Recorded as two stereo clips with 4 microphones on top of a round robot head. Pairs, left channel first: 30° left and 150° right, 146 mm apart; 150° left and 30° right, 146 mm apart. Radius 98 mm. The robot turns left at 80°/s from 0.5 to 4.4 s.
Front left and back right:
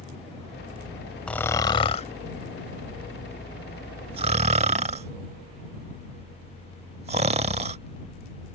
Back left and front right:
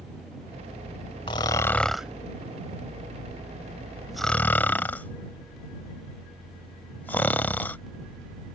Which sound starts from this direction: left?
Snoring, at 1.3 s.